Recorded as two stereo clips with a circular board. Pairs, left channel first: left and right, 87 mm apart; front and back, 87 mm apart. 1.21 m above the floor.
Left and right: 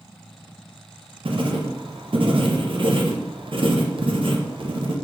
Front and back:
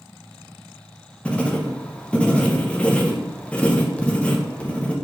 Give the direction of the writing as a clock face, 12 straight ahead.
3 o'clock.